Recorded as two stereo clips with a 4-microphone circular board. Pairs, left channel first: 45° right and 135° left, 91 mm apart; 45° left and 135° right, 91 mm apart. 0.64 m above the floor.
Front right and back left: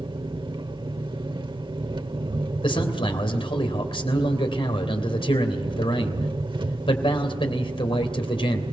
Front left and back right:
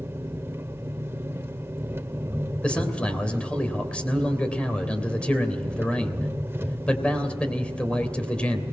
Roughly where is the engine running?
Behind.